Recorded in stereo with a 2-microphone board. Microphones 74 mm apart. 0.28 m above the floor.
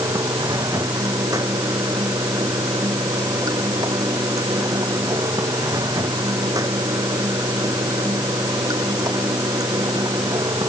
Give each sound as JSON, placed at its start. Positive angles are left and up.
{"t": 0.0, "sound": "running water", "side_deg": -55}